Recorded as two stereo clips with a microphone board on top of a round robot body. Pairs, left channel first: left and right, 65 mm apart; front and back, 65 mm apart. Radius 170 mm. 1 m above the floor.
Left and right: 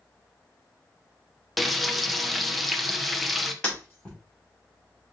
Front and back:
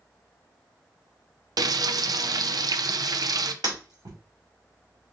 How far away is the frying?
About 0.6 m.